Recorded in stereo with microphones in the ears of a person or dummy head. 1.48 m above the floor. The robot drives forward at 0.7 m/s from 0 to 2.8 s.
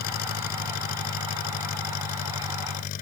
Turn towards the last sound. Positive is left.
turn(degrees=50)  # may be behind; listen again after turning